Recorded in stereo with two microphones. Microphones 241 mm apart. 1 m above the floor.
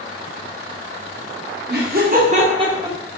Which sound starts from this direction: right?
Laughter, at 1.7 s.